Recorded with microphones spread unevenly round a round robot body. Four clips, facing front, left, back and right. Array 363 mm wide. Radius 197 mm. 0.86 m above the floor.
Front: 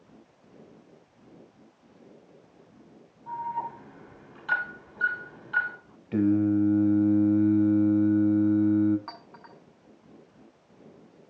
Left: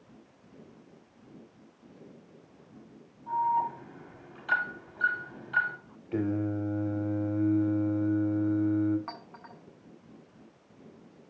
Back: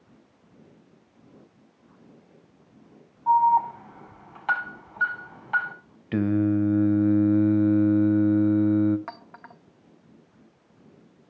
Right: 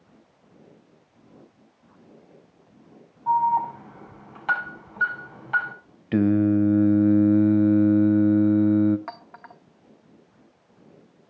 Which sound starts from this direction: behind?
A clink, at 9.1 s.